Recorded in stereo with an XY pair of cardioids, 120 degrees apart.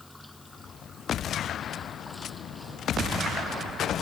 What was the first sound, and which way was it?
Running water, 5° left.